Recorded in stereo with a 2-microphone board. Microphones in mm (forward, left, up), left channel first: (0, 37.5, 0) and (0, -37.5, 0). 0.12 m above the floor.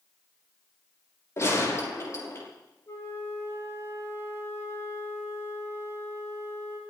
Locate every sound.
1.4 s a gunshot: 40° left (ahead or behind), 5.5 m
2.9 s a flute: 35° left (ahead or behind), 5.5 m